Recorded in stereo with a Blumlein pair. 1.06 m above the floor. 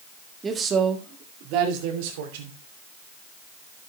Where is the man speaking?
15° right, 1.7 m; by 2.6 s 55° right, 3 m.